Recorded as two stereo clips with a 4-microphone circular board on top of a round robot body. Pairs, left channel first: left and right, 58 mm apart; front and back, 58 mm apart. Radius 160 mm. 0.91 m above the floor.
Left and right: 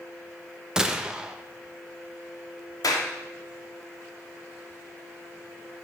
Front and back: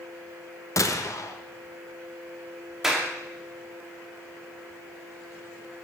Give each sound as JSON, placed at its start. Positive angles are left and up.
{"t": 0.8, "sound": "a gunshot", "azimuth_deg": -10, "distance_m": 1.5}
{"t": 2.8, "sound": "a clap", "azimuth_deg": 95, "distance_m": 2.5}